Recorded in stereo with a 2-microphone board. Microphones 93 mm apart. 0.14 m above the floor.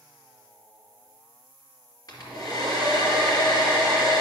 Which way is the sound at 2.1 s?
40° left (ahead or behind).